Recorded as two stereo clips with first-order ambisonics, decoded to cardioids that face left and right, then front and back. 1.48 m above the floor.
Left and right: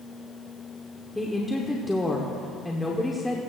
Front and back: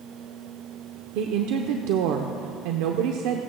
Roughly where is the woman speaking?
Behind.